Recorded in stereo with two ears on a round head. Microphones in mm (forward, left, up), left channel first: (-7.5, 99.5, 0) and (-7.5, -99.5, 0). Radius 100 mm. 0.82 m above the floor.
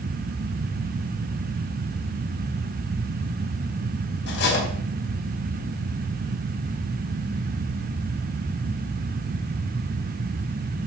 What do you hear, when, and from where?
4.3 s cutlery clinking: 55° left (ahead or behind), 3.5 m